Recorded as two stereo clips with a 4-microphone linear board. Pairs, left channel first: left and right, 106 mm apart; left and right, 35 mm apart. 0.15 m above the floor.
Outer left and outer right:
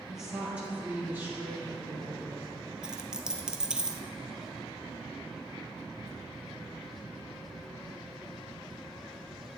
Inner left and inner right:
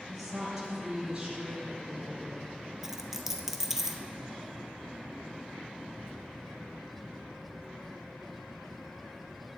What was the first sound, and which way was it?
A woman speaking, centre (ahead or behind).